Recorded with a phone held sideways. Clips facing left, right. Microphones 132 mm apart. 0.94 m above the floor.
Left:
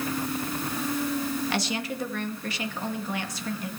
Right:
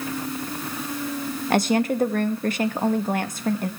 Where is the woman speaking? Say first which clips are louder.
Right 9 dB; 50° right (ahead or behind), 1.3 m.